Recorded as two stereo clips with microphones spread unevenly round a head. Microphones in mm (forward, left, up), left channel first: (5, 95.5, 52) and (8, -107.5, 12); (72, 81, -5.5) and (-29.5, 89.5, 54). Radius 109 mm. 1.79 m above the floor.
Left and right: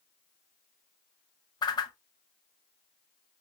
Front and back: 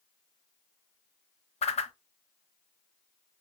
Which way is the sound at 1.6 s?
20° left.